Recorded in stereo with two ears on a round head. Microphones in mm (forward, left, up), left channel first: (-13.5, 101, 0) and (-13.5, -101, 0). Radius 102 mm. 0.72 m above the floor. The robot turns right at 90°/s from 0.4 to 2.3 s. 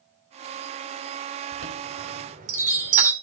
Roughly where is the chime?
Right.